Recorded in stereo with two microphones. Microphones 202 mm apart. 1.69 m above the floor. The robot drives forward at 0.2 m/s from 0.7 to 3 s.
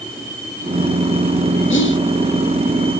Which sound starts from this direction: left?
Whispering, at 1.7 s.